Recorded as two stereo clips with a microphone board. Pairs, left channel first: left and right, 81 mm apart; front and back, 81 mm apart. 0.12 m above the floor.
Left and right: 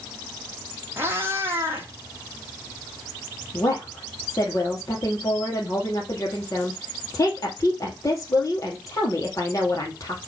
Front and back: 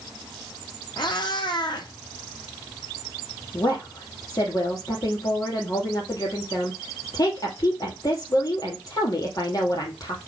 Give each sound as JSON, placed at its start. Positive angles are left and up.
{"t": 1.0, "sound": "a cat meowing", "azimuth_deg": -30, "distance_m": 1.8}
{"t": 3.5, "sound": "a woman speaking", "azimuth_deg": 40, "distance_m": 3.0}